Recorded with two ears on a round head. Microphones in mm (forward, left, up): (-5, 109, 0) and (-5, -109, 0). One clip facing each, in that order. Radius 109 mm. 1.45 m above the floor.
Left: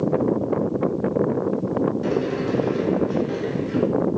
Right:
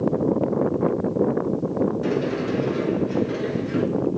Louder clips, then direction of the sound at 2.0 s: Left 1 dB; 5° right (ahead or behind).